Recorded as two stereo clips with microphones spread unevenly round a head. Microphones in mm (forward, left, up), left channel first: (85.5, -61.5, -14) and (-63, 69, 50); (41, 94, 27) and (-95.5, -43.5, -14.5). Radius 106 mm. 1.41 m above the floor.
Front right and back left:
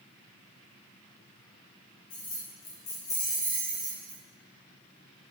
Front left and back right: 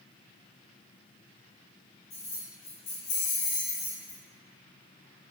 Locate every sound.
2.1 s keys jangling: 15° right, 1.3 m; by 4.2 s 110° left, 1.3 m